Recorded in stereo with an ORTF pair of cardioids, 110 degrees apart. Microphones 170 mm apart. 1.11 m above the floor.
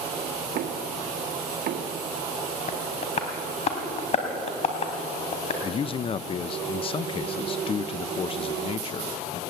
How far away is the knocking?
About 1.6 m.